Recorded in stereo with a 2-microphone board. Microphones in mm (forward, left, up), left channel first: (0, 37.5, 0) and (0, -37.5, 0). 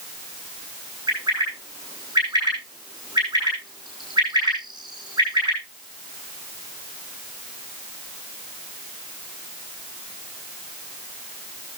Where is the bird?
75° right (ahead or behind), 6 m.